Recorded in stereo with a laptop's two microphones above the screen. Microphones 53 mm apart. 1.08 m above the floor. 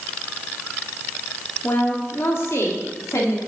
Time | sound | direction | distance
1.6 | a woman speaking | 45° left (ahead or behind) | 2 m